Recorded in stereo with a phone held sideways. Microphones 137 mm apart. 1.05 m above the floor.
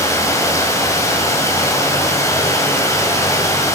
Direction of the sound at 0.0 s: 20° left (ahead or behind).